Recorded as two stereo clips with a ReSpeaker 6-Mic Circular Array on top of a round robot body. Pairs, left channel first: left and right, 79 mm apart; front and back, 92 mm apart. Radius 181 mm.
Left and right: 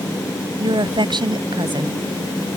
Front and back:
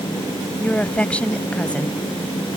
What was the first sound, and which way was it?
A woman speaking, 75° right.